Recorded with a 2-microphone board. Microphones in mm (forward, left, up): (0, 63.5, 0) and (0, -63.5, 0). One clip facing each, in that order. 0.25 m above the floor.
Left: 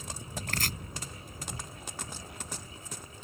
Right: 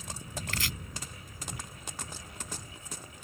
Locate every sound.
0.5 s chopping: 50° left (ahead or behind)